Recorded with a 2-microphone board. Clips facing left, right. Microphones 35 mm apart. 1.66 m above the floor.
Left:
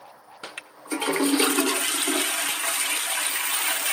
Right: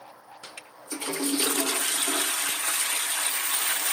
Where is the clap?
I don't hear a clap.